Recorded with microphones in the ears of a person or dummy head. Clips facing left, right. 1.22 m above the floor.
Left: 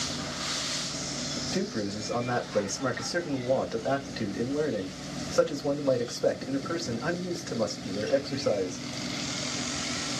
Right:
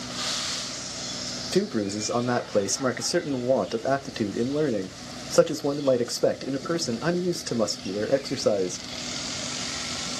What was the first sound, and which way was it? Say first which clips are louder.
A man speaking: right 7 dB; 50° right (ahead or behind).